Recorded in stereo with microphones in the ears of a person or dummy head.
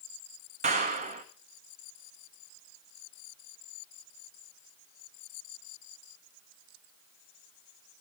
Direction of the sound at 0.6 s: 35° right (ahead or behind).